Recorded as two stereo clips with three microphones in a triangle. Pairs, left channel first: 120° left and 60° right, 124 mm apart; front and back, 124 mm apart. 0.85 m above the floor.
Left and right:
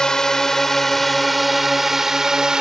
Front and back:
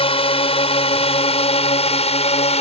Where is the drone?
35° left; by 2.6 s 25° left.